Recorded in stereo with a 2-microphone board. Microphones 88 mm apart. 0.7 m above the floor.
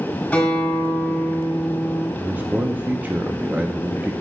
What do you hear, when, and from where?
0.3 s a guitar: 15° left (ahead or behind), 4 m
2.2 s a man speaking: 20° right (ahead or behind), 0.6 m